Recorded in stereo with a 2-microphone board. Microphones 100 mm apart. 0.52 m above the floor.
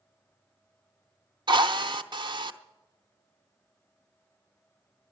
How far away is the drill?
About 0.7 m.